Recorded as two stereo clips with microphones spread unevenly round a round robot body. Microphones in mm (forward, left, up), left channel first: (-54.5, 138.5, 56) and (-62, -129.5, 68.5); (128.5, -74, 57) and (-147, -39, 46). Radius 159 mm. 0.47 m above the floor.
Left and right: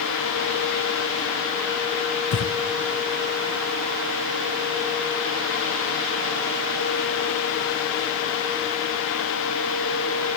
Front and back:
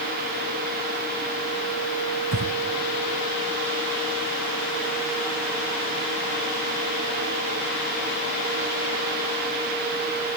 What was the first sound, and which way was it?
Breathing, 120° left.